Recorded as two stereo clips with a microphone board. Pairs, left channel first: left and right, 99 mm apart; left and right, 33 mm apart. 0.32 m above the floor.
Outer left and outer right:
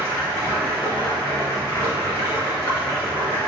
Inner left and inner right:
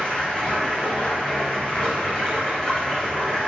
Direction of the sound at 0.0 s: 25° left (ahead or behind).